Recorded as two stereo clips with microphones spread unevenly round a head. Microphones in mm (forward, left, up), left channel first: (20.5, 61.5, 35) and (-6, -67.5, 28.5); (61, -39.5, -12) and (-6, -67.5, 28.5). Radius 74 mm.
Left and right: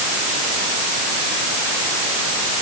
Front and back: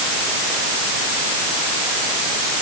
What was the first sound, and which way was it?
Only background noise.